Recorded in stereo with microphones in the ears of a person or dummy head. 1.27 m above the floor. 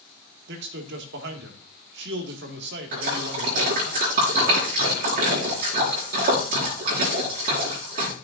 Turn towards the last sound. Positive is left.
turn(degrees=-55)  # may be behind; listen again after turning